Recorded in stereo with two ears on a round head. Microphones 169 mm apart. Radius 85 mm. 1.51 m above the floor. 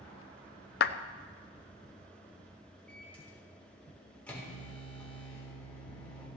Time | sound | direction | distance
0.8 | a clap | 55° left (ahead or behind) | 0.6 m
2.9 | a microwave | 5° left (ahead or behind) | 4 m